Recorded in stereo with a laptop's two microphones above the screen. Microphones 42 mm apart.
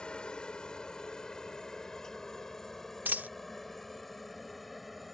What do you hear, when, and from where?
0.0 s a helicopter: 20° left (ahead or behind); by 5.2 s centre (ahead or behind)
3.0 s a dropped coin: 45° right (ahead or behind)